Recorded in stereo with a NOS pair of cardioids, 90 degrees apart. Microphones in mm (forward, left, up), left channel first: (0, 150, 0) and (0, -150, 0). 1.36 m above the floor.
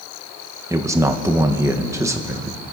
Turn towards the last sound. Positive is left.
turn(degrees=-10)